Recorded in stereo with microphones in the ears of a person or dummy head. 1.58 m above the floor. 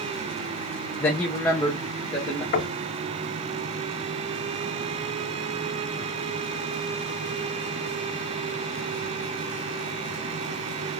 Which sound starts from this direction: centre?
A man speaking, at 1.0 s.